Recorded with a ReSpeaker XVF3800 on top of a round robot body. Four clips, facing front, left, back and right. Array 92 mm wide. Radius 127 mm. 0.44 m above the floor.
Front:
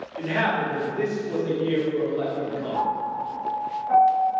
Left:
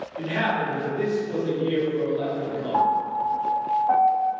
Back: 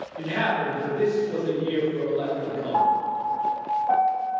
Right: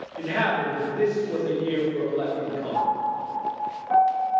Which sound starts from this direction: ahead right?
A man speaking, at 0.2 s.